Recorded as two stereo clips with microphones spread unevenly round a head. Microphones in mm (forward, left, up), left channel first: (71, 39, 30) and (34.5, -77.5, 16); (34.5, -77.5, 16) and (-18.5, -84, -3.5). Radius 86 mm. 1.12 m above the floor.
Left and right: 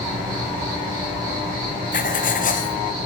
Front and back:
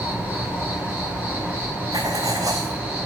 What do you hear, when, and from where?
0.0 s an insect: 120° right, 9 m
1.9 s writing: 115° left, 1.0 m